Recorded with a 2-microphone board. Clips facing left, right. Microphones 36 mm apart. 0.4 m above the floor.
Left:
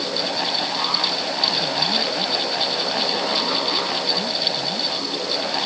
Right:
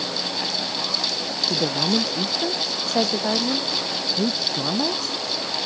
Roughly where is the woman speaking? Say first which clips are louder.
Even; right.